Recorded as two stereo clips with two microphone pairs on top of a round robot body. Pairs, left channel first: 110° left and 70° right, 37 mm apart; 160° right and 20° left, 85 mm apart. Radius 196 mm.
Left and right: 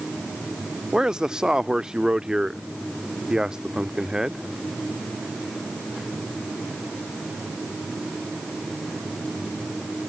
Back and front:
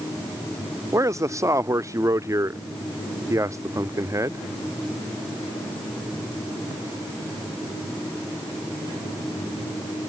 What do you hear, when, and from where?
0.9 s a man speaking: 10° right